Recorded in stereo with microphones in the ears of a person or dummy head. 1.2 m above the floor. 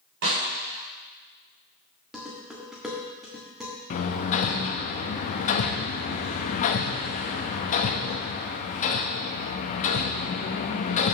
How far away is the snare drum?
About 4.5 m.